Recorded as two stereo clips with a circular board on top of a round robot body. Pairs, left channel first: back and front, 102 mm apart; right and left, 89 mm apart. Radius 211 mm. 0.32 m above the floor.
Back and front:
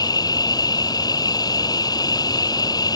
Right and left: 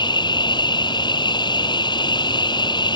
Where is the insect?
125° right.